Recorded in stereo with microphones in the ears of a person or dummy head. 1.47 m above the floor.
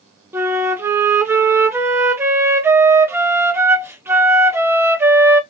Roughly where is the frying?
No frying in this recording.